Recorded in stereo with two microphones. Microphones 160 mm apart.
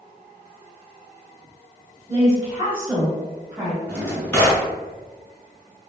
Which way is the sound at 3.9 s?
10° left (ahead or behind).